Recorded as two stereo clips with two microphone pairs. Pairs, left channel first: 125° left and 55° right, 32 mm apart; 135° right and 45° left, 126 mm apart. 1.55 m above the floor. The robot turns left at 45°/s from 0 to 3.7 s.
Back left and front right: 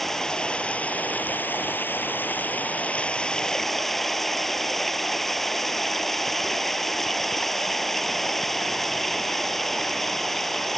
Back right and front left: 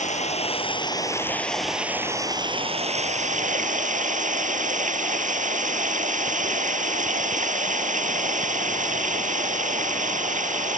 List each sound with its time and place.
0.0 s running water: 155° right; by 10.8 s 40° left